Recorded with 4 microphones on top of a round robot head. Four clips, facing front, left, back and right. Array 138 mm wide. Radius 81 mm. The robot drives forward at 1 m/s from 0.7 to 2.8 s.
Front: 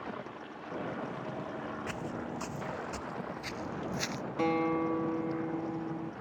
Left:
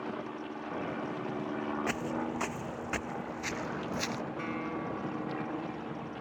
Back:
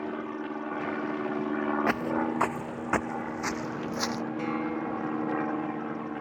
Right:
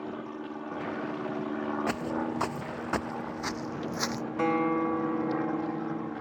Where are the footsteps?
165° right; by 4.2 s 135° right.